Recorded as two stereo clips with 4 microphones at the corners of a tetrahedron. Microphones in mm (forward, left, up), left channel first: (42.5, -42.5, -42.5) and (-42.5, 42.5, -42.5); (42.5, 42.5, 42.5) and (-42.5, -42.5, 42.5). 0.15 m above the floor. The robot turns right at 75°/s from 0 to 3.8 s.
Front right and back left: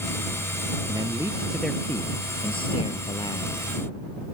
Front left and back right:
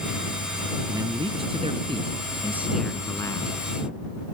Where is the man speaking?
170° left; by 3.5 s 10° left.